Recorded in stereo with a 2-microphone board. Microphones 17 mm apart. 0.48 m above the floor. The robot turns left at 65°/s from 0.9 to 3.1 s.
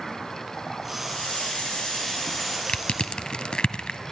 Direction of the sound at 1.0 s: 110° left.